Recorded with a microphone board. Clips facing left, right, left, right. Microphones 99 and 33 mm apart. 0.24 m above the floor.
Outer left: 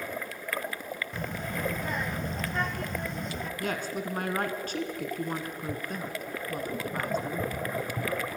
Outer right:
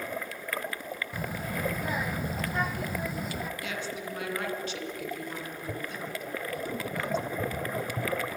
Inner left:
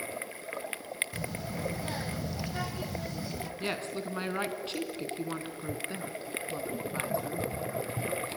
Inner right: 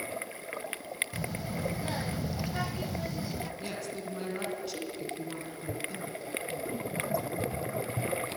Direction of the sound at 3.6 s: 45° left (ahead or behind).